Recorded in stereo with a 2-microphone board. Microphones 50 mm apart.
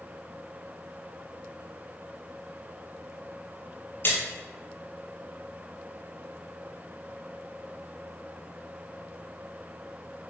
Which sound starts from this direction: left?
A splash, at 4.0 s.